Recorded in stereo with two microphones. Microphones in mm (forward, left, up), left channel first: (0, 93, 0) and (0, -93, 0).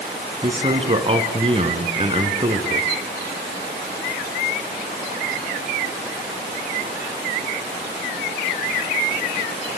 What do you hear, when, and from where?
0.4 s a man speaking: 30° right (ahead or behind), 3 m